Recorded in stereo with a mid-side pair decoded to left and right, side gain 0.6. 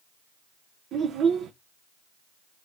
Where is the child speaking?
55° right, 0.6 m.